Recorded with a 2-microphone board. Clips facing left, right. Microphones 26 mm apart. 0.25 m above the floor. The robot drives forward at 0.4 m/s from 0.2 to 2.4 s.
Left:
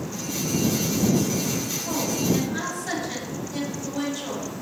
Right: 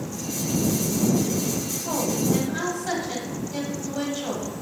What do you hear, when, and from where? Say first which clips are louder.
1.9 s a woman speaking: right 1 dB; 25° right (ahead or behind), 1.1 m